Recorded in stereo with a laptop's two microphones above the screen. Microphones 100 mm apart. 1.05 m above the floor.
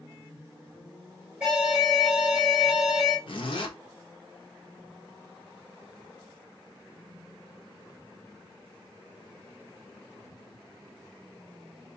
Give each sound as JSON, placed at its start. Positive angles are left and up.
{"t": 1.4, "sound": "an alarm", "side_deg": -10, "distance_m": 2.5}
{"t": 3.3, "sound": "a zipper", "side_deg": 55, "distance_m": 0.7}